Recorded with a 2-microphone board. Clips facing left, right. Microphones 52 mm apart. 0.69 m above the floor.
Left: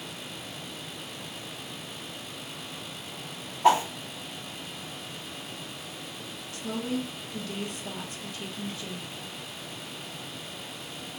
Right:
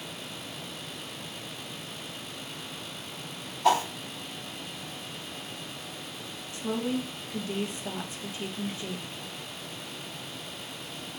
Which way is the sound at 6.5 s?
25° right (ahead or behind).